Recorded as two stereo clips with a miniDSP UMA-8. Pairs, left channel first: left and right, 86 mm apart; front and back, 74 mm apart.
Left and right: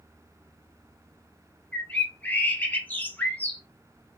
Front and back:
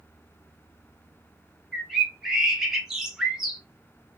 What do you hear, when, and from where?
1.7 s a bird: 105° left, 0.7 m